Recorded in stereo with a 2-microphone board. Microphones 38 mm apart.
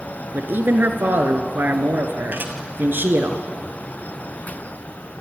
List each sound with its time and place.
0.3 s a man speaking: 60° right (ahead or behind), 2.5 m
2.3 s dishes clattering: 60° right (ahead or behind), 2.5 m